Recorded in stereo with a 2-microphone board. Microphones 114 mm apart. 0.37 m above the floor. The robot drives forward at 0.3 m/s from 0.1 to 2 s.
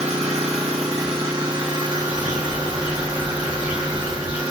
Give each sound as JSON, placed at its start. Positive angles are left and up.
{"t": 0.0, "sound": "an engine running", "side_deg": -65, "distance_m": 0.7}
{"t": 1.9, "sound": "a bird", "side_deg": -10, "distance_m": 1.9}